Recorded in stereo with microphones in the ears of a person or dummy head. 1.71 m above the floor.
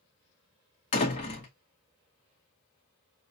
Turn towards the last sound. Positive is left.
turn(degrees=25)  # may be behind; listen again after turning